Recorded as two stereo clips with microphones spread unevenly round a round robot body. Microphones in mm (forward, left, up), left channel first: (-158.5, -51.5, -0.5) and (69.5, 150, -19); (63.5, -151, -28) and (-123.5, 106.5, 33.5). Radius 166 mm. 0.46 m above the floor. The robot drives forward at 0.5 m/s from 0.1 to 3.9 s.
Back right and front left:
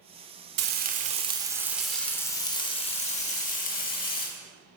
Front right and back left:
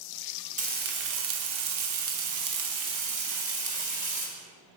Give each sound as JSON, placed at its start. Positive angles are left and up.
{"t": 0.6, "sound": "frying", "azimuth_deg": 60, "distance_m": 0.9}